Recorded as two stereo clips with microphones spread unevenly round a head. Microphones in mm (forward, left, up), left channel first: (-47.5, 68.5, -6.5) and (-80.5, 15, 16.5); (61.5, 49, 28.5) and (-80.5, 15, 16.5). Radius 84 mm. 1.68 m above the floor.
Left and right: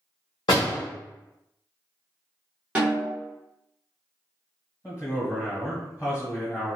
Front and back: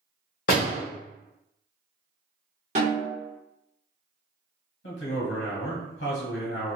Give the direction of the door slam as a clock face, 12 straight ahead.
12 o'clock.